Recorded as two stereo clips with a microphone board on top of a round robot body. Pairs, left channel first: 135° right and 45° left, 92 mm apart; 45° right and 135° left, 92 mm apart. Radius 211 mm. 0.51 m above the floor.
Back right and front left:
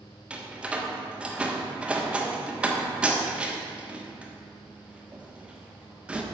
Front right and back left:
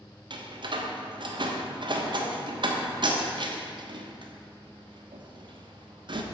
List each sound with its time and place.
0.3 s a door slam: 120° left, 1.3 m